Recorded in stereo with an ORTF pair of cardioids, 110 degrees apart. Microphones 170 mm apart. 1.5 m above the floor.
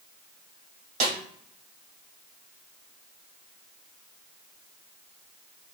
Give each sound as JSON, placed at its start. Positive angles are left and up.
{"t": 1.0, "sound": "a snare drum", "azimuth_deg": -50, "distance_m": 2.0}